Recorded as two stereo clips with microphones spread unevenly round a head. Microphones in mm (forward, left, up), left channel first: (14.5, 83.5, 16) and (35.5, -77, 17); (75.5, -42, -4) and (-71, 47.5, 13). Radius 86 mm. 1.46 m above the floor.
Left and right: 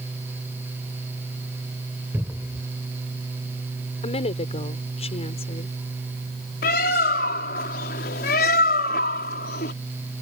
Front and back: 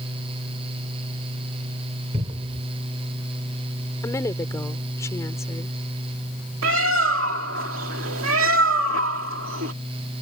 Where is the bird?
140° left.